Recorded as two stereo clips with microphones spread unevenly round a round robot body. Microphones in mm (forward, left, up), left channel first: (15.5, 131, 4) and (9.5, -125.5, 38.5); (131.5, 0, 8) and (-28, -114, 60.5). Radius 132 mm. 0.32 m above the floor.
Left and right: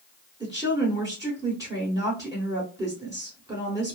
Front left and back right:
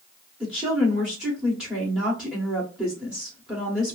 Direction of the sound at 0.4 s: 15° right.